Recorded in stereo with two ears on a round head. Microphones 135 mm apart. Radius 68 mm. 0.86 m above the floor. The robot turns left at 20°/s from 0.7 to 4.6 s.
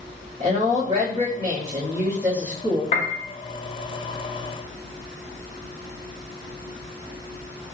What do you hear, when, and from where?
0.4 s a woman speaking: 130° right, 2.0 m; by 2.8 s 170° right, 2.0 m
2.9 s a piano: 50° left (ahead or behind), 0.7 m; by 3.2 s 55° left (ahead or behind), 0.7 m